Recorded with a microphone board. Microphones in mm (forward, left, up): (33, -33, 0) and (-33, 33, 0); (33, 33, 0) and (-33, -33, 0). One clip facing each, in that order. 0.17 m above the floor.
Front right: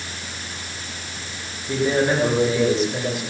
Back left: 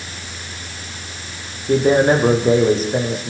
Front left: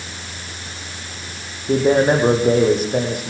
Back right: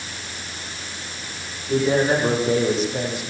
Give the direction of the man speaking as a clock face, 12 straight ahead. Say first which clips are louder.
Back left 6 dB, front left 4 dB; 9 o'clock.